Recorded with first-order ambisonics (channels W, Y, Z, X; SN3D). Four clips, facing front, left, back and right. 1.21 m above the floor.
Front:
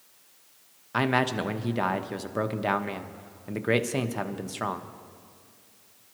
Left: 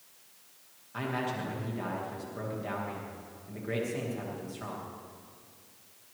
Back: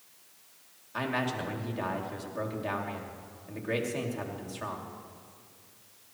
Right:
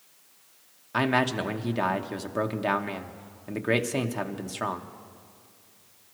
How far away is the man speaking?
About 0.9 m.